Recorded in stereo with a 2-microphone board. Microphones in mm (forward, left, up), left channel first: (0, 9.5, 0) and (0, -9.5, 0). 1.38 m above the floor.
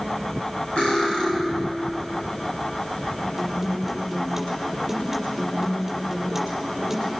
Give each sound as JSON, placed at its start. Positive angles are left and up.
{"t": 0.8, "sound": "cutlery clinking", "side_deg": 70, "distance_m": 6.0}
{"t": 3.4, "sound": "a guitar", "side_deg": -20, "distance_m": 5.5}